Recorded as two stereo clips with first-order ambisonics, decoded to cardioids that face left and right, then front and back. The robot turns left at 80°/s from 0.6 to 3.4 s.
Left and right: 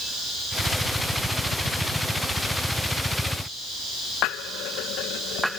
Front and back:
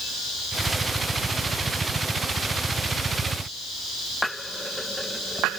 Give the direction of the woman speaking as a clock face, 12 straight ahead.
I don't hear a woman speaking.